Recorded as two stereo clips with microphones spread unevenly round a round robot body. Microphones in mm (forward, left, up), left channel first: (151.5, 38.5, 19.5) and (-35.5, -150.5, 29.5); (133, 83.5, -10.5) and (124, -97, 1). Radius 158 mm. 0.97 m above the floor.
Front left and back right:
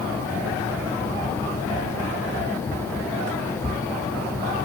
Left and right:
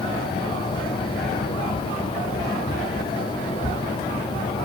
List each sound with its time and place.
Only background noise.